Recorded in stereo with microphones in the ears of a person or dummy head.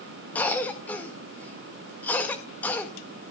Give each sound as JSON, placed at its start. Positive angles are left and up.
{"t": 0.3, "sound": "a cough", "side_deg": 10, "distance_m": 1.8}